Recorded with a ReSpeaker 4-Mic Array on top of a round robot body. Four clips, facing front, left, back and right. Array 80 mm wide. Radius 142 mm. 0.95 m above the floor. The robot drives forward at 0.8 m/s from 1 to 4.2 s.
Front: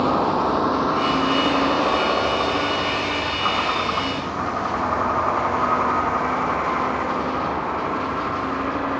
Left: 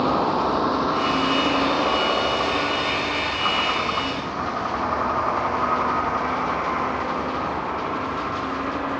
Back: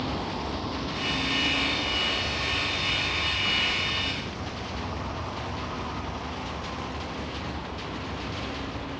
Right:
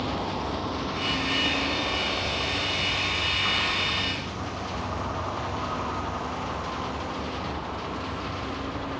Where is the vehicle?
35° left; by 9.0 s 25° left.